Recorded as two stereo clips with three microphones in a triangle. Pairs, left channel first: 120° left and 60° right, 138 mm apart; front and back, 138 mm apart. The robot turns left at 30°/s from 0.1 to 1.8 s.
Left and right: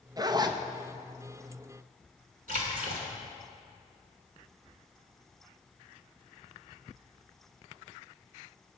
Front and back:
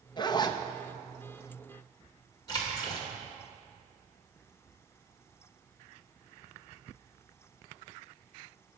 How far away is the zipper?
About 0.6 m.